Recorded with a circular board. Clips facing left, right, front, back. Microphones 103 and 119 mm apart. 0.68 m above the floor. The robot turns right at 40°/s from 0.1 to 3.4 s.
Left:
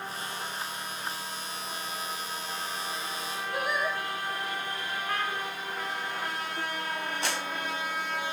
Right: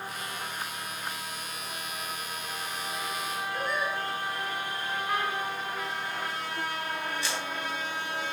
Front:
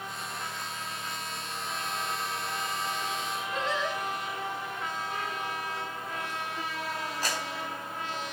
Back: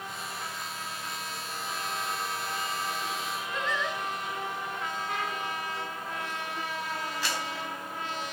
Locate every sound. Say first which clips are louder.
3.5 s singing: left 2 dB, front 1 dB; 60° left, 2.5 m
5.1 s a trumpet: right 2 dB, back 1 dB; 165° right, 2.5 m
7.2 s a clap: left 1 dB, front 1 dB; 50° left, 3.5 m